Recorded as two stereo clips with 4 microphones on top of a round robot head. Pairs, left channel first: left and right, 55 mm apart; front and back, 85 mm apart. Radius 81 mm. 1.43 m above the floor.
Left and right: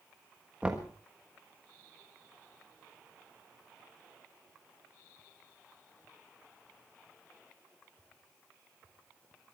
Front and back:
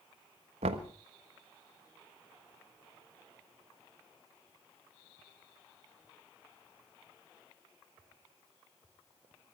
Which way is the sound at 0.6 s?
170° right.